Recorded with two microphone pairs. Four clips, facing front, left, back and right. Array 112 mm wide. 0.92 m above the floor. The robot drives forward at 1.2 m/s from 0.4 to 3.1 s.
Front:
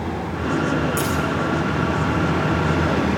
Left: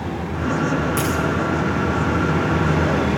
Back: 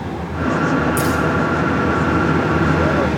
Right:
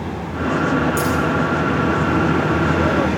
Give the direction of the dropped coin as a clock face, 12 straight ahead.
8 o'clock.